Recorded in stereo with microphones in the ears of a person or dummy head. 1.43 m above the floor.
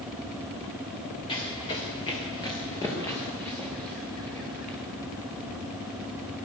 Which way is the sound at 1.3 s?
35° left (ahead or behind).